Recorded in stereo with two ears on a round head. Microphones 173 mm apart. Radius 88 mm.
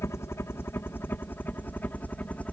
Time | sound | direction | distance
0.0 | a helicopter | 15° left (ahead or behind) | ?